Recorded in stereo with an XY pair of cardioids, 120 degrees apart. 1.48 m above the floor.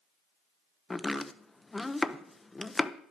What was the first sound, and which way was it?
Chopping, 15° left.